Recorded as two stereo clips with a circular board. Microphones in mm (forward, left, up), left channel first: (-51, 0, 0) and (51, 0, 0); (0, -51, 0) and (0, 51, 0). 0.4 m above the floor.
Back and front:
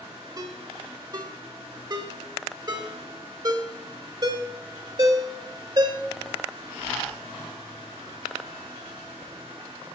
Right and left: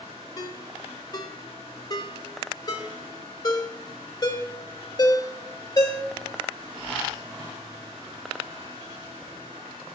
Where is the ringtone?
45° right, 1.4 m.